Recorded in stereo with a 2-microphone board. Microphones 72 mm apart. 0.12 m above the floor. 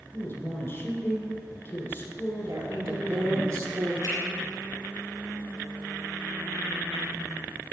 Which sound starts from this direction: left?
A man speaking, at 0.1 s.